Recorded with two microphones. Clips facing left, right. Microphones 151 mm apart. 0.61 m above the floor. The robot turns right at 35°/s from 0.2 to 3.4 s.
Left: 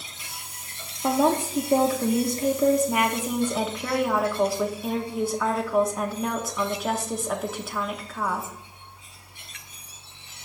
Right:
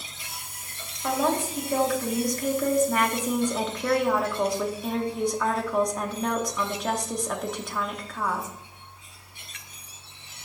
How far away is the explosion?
I don't hear an explosion.